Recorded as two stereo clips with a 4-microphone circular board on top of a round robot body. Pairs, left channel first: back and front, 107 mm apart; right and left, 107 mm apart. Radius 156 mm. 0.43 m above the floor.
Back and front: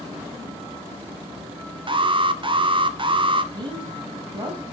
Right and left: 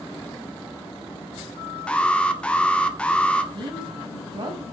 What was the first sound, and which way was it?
An alarm, 15° right.